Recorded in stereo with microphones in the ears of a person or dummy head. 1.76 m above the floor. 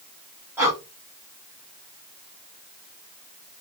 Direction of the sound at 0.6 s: 15° right (ahead or behind).